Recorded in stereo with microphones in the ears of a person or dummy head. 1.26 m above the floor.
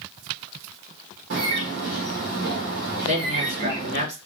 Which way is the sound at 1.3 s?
60° right (ahead or behind).